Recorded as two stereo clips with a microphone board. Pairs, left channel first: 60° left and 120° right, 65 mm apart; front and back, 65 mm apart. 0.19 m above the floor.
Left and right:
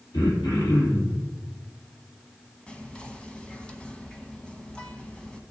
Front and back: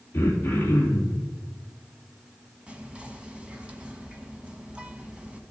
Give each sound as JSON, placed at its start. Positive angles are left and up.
{"t": 0.1, "sound": "throat clearing", "azimuth_deg": 55, "distance_m": 3.0}
{"t": 2.7, "sound": "whispering", "azimuth_deg": 120, "distance_m": 1.1}